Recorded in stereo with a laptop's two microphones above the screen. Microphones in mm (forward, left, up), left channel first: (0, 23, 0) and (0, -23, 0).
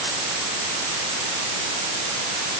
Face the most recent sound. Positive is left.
No sound to turn to.